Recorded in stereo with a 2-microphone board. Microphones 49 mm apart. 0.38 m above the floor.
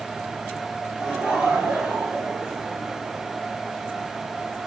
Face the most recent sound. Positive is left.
turn(degrees=-15)  # may be behind; listen again after turning